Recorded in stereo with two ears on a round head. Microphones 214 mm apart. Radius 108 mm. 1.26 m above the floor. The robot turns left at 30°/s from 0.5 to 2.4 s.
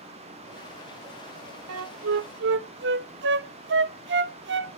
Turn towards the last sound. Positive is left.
turn(degrees=-50)  # may be behind; listen again after turning